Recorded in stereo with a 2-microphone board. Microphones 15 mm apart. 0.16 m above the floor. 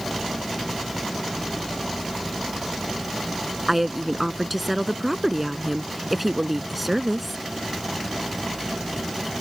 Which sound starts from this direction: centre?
A woman speaking, at 3.7 s.